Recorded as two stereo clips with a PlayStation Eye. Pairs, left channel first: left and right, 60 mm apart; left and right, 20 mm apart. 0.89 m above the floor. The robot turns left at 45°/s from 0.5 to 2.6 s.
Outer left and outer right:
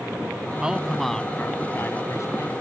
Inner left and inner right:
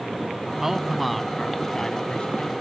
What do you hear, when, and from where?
0.6 s a man speaking: 165° right; by 2.5 s 110° left